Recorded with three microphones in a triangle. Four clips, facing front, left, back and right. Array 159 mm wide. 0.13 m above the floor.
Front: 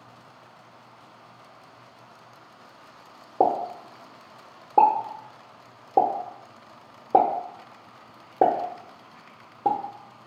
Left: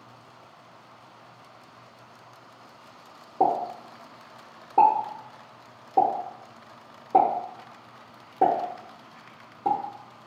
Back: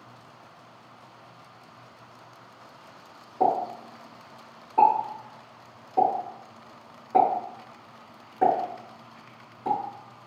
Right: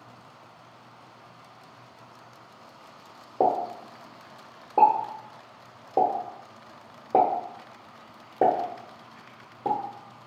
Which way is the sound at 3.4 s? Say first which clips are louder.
Even, front 1 dB; 10° right.